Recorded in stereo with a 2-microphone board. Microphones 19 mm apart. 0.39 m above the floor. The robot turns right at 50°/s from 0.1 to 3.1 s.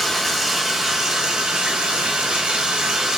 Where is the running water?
165° left, 1.5 m; by 3.2 s 45° right, 1.5 m.